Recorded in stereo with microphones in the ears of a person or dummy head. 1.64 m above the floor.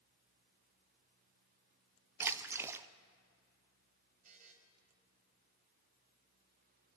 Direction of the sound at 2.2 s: 15° right (ahead or behind).